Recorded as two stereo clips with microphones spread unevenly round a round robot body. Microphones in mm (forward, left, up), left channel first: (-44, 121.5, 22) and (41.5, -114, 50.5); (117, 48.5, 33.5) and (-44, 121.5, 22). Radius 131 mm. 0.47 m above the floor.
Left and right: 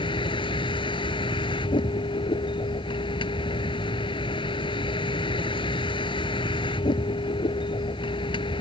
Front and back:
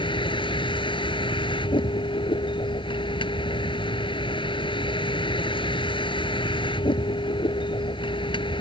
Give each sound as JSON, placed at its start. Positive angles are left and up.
{"t": 0.0, "sound": "a vehicle", "azimuth_deg": 40}